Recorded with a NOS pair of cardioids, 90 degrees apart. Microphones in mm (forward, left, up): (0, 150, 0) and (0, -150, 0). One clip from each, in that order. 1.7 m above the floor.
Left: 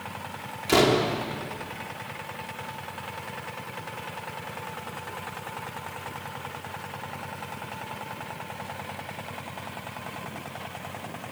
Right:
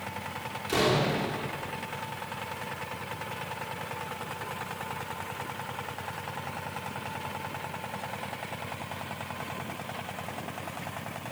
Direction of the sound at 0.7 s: 65° left.